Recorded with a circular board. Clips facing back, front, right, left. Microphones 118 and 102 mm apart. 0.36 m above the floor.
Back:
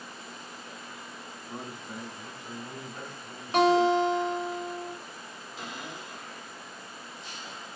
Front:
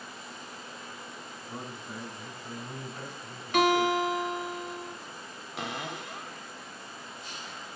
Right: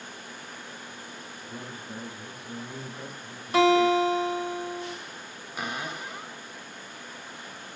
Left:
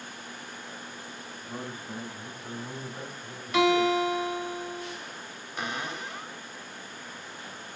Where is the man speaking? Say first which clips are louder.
Back 1 dB, left 3 dB; 110° left, 2.5 m; by 4.5 s 125° left, 1.2 m.